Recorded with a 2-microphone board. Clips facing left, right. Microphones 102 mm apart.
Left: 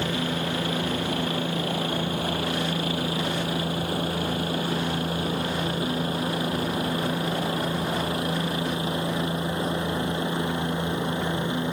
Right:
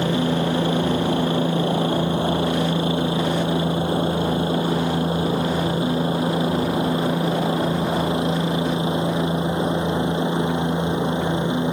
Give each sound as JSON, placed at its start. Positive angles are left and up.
{"t": 0.0, "sound": "a helicopter", "side_deg": -30}